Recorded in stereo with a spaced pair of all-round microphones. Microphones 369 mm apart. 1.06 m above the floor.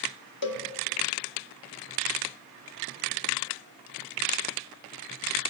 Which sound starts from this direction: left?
A cowbell, at 0.4 s.